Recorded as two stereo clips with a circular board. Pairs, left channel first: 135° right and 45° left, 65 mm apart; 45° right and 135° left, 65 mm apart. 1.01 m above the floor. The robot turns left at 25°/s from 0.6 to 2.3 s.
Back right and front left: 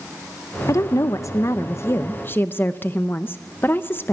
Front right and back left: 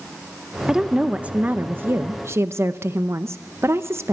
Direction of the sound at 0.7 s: 145° right.